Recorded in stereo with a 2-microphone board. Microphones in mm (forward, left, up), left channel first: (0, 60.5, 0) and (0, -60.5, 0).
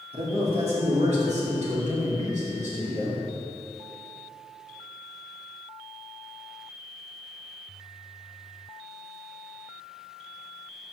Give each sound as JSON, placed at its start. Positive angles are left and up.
{"t": 0.1, "sound": "a man speaking", "side_deg": -50, "distance_m": 2.5}